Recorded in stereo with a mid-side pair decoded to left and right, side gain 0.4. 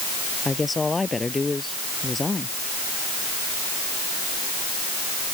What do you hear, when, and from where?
0.5 s a woman speaking: 25° left